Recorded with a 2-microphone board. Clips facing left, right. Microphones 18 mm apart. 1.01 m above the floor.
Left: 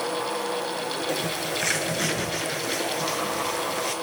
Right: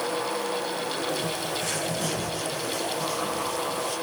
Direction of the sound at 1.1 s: 65° left (ahead or behind).